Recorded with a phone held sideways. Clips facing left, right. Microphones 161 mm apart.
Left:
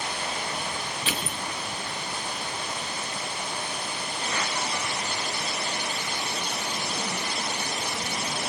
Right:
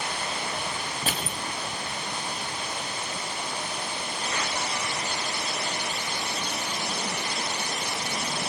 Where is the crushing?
45° right (ahead or behind), 4.5 m.